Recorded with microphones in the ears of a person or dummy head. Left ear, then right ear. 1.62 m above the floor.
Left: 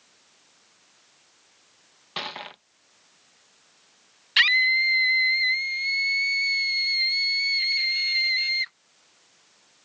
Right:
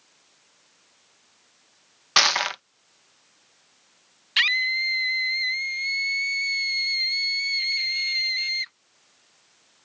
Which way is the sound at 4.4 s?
5° left (ahead or behind).